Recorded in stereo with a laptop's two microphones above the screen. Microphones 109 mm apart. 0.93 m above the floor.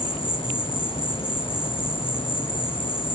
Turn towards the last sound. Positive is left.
turn(degrees=55)  # may be behind; listen again after turning